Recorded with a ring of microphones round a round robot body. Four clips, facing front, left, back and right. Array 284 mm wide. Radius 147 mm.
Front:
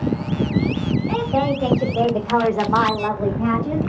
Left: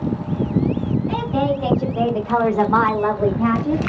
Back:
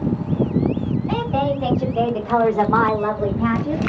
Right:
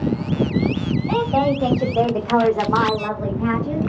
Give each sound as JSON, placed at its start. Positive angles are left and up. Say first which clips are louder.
{"t": 1.1, "sound": "a woman speaking", "louder": "right 4 dB, even", "azimuth_deg": -60, "distance_m": 2.5}